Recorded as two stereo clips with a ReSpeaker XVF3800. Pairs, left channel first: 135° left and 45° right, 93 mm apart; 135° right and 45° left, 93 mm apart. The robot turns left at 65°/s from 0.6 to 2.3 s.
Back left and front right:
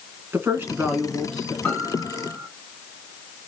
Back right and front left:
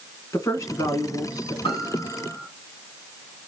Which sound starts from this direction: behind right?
A piano, at 1.6 s.